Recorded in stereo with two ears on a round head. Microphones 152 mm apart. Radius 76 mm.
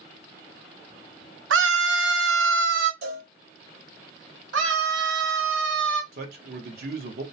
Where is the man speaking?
65° right (ahead or behind), 0.8 m.